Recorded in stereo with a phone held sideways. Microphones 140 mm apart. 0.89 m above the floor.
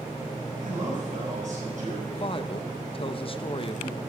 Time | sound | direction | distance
0.6 | a man speaking | 70° right (ahead or behind) | 6 m
2.1 | a woman speaking | 40° left (ahead or behind) | 0.6 m